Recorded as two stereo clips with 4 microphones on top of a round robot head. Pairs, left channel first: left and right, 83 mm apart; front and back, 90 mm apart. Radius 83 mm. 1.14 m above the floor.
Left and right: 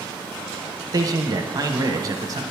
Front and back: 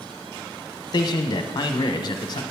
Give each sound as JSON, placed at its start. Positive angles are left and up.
{"t": 0.9, "sound": "a man speaking", "azimuth_deg": -45, "distance_m": 0.8}